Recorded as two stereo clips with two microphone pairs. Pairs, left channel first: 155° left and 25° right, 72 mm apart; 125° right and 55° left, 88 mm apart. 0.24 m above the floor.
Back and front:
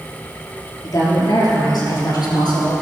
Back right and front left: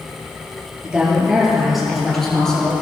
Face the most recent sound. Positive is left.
turn(degrees=155)